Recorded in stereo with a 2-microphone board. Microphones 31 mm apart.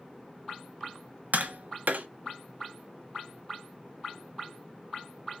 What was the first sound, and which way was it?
Tapping, 70° right (ahead or behind).